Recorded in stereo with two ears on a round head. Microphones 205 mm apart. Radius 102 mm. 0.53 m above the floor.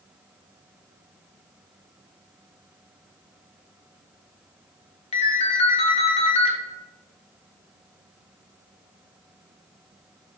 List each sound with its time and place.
5.1 s a ringtone: 25° left (ahead or behind), 0.5 m